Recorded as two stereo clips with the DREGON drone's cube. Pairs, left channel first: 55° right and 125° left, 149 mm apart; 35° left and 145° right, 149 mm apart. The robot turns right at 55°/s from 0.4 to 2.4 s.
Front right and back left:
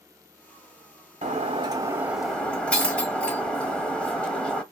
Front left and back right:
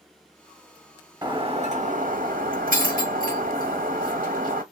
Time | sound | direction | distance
1.2 | breaking glass | 155° left | 1.0 m